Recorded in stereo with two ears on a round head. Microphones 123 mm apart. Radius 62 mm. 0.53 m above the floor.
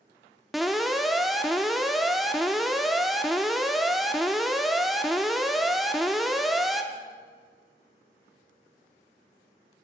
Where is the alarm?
Centre (ahead or behind), 0.6 m.